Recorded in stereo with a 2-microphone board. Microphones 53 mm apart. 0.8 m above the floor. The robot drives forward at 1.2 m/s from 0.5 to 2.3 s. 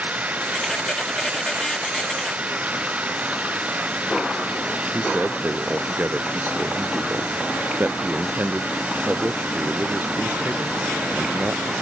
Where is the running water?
30° right (ahead or behind).